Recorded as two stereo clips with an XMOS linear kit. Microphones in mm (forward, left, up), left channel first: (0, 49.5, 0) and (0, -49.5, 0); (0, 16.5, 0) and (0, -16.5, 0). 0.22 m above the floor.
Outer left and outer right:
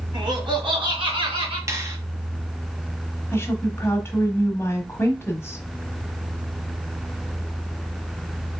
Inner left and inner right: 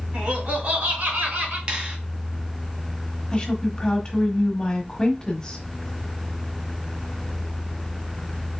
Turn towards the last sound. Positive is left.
turn(degrees=25)  # may be behind; listen again after turning